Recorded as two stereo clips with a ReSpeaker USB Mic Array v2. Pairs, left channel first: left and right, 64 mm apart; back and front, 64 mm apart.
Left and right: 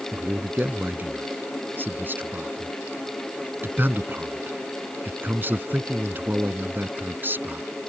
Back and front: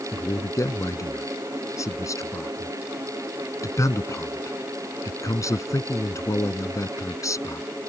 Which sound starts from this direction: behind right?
A man speaking, at 0.1 s.